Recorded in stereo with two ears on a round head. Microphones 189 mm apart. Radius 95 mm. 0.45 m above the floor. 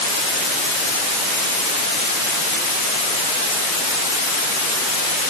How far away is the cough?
I don't hear a cough.